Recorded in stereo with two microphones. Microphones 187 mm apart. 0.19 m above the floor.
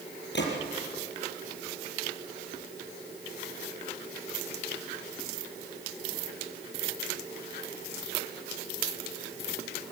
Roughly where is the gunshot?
Left.